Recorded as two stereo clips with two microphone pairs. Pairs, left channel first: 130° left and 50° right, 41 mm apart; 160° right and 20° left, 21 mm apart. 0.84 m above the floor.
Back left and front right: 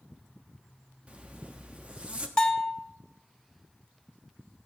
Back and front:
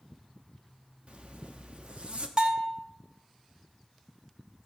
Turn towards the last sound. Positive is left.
turn(degrees=65)